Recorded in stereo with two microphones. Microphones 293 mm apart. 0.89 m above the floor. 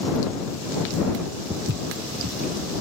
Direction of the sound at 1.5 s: 60° right (ahead or behind).